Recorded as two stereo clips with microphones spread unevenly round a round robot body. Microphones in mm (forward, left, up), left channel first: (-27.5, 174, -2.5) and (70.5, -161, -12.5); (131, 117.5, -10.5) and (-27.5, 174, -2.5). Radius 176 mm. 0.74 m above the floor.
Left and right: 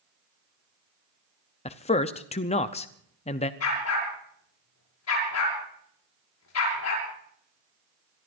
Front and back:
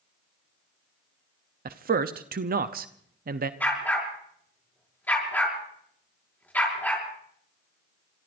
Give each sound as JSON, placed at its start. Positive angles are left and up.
{"t": 1.6, "sound": "a man speaking", "azimuth_deg": 175, "distance_m": 0.6}
{"t": 3.6, "sound": "a dog barking", "azimuth_deg": 60, "distance_m": 6.5}